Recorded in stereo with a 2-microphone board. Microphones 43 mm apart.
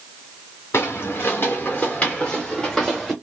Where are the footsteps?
75° left (ahead or behind), 1.6 m; by 3.1 s centre (ahead or behind), 2 m.